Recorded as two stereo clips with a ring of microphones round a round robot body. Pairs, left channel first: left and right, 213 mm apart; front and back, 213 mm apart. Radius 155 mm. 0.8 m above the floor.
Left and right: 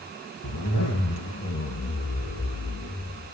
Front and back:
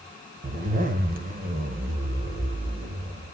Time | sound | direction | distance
0.4 | a zipper | 130° left | 2 m